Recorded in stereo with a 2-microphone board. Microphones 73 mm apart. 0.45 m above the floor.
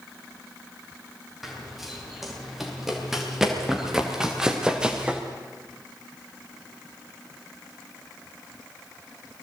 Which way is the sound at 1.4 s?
Centre (ahead or behind).